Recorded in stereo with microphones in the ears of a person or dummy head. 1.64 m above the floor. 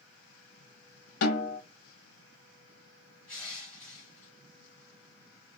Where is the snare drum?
55° left (ahead or behind), 1.3 m.